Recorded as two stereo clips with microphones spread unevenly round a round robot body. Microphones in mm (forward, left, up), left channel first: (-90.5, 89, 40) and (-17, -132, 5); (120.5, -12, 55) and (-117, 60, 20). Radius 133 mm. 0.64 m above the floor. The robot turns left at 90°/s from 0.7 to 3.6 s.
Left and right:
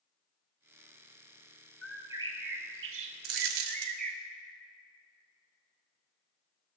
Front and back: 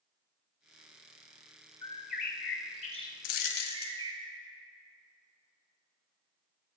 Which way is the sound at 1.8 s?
40° left.